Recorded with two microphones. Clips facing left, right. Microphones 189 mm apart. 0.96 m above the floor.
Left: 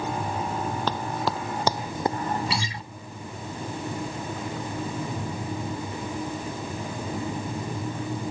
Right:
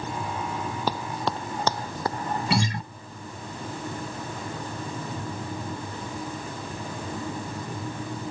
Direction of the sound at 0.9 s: 10° right (ahead or behind).